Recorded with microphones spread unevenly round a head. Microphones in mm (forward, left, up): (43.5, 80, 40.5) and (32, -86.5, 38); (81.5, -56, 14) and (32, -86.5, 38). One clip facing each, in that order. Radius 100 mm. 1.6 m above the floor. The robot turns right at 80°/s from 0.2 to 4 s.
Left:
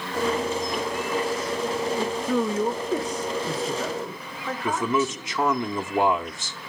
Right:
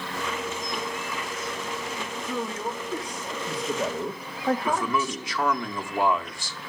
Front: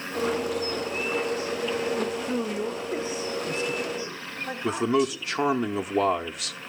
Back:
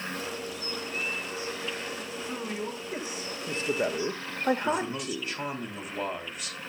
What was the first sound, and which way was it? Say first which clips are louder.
A man speaking: left 6 dB, front 6 dB; 65° left.